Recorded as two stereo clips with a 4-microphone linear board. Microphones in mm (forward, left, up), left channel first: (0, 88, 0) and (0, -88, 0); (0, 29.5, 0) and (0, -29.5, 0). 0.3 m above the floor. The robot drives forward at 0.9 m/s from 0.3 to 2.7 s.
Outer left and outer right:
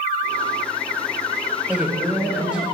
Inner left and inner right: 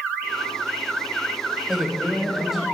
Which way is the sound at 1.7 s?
5° right (ahead or behind).